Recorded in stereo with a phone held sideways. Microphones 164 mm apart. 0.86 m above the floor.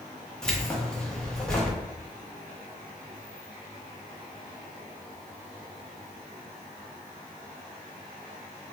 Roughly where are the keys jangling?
Centre.